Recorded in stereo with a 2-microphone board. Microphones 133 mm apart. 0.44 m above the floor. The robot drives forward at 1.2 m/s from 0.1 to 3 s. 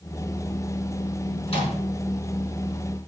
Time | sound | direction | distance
1.5 | a microwave | 45° left (ahead or behind) | 4.5 m